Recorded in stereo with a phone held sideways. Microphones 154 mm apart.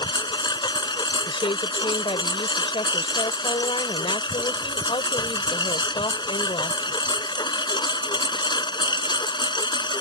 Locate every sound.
0.0 s a lawn mower: 30° left (ahead or behind)
1.3 s a woman speaking: 35° left (ahead or behind)